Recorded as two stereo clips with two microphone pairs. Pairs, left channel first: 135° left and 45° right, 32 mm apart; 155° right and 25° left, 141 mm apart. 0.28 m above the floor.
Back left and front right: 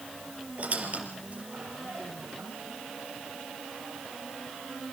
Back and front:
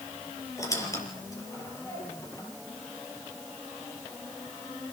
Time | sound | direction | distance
0.6 | a squeak | 90° right | 5.5 m